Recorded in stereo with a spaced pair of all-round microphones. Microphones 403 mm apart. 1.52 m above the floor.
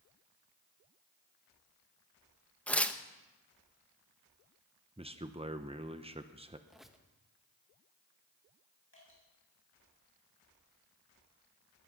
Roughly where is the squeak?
Centre.